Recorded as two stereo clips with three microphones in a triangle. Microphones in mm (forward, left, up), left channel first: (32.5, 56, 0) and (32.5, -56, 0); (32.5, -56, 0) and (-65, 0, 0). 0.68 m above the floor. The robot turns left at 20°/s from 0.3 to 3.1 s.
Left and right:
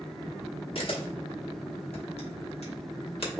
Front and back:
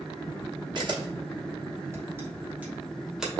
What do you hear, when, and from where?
0.8 s a camera shutter: 115° left, 1.0 m; by 3.3 s 65° left, 1.0 m